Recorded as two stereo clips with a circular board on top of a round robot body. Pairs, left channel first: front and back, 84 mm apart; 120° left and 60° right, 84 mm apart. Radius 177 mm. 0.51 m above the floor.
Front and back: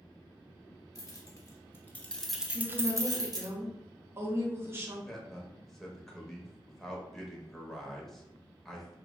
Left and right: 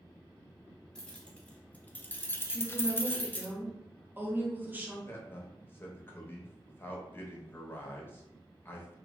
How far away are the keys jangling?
About 1.1 m.